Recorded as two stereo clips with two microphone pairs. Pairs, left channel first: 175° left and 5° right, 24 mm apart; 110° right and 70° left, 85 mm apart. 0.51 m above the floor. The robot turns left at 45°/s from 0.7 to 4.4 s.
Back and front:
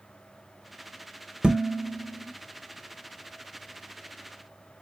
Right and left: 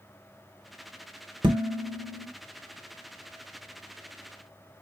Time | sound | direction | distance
1.4 | dishes clattering | 50° left | 1.4 m